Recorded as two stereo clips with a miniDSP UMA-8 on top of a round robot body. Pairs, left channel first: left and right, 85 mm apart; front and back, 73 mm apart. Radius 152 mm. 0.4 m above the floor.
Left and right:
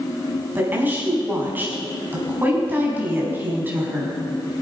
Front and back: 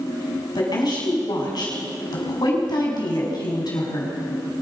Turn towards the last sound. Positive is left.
turn(degrees=-20)